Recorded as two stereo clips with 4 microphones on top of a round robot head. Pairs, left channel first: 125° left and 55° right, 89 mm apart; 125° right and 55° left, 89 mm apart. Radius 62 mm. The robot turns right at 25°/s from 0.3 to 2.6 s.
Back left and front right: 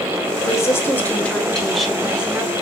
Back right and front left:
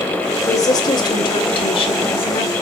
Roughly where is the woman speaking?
Behind.